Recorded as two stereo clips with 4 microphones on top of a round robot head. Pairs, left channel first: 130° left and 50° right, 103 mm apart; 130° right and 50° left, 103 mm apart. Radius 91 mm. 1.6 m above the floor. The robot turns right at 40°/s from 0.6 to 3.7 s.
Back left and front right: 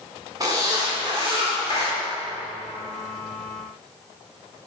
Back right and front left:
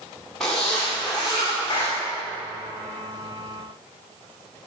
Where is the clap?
Straight behind, 1.3 m; by 2.0 s 170° right, 1.3 m.